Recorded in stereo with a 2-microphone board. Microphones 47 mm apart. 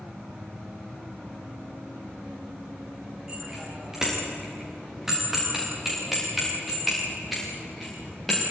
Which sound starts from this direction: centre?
A bicycle bell, at 3.3 s.